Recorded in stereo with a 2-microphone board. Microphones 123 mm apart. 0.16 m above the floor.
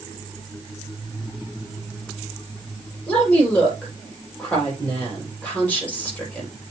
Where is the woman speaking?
10° left (ahead or behind), 5 m.